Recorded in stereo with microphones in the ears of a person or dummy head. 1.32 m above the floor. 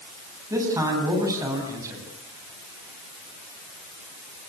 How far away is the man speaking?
About 9 m.